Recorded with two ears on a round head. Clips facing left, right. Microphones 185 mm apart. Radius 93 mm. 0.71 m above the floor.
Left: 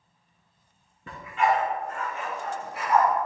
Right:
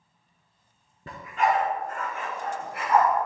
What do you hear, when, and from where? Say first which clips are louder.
1.1 s a dog barking: even; 30° right (ahead or behind), 1.9 m; by 3.1 s 55° right (ahead or behind), 2.5 m